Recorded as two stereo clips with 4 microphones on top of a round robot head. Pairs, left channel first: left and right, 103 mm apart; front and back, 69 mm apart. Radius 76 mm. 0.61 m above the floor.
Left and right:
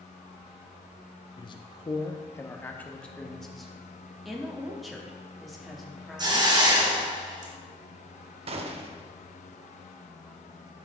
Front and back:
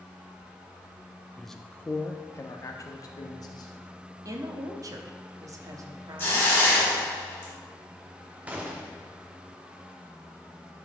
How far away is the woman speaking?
About 0.9 m.